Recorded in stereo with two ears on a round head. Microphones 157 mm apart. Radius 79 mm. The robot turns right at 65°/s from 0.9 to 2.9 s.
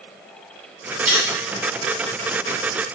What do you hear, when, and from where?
1.1 s cutlery clinking: 10° right (ahead or behind), 1.7 m; by 1.3 s 5° left (ahead or behind), 1.7 m